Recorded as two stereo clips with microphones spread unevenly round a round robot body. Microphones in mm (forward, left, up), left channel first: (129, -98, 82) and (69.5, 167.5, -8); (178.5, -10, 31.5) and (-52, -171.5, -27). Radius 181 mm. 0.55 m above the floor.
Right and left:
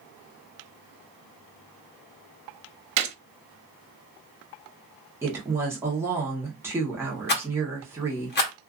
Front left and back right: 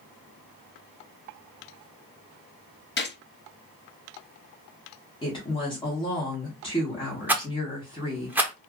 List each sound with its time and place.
3.0 s a gunshot: 90° left, 0.7 m
5.2 s a woman speaking: 115° left, 0.9 m
7.3 s a rattle: 115° right, 0.9 m